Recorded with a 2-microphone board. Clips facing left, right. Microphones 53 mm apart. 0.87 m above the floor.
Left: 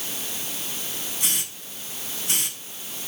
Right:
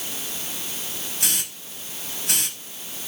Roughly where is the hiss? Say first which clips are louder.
Right 3 dB; right.